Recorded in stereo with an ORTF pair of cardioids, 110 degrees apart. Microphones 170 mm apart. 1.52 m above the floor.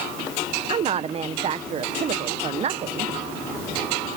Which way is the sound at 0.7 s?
40° right.